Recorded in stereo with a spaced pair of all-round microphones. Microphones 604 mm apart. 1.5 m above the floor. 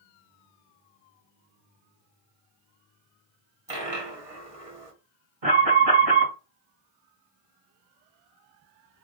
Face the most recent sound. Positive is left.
turn(degrees=-65)  # may be behind; listen again after turning